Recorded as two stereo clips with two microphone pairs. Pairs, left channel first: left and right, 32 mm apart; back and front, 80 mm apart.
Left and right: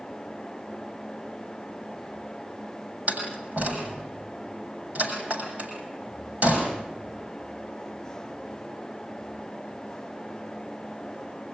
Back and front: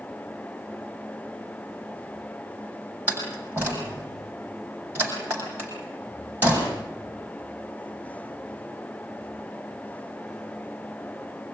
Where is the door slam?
65° right, 7 m.